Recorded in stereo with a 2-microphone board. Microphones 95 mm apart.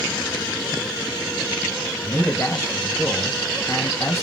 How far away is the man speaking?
About 1.7 m.